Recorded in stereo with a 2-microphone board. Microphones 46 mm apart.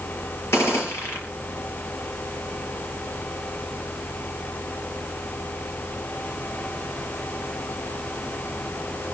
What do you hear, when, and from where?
0.5 s a gunshot: 65° left (ahead or behind), 4.5 m